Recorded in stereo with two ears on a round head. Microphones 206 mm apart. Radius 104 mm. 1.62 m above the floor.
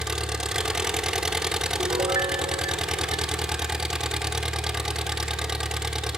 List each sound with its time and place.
0.0 s an engine running: 5° right (ahead or behind), 1.6 m
1.8 s a piano: 15° right (ahead or behind), 1.1 m